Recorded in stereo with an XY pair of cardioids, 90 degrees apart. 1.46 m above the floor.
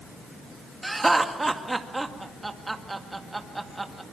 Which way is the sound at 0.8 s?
20° right.